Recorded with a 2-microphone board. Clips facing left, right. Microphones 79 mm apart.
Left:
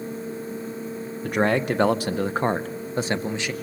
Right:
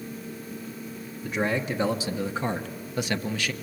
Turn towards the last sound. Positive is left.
turn(degrees=20)  # may be behind; listen again after turning